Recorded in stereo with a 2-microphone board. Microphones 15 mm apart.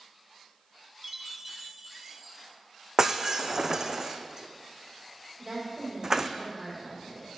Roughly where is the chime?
Centre.